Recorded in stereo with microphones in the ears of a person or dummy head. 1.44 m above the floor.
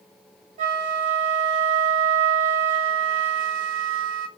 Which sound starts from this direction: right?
A flute, at 0.6 s.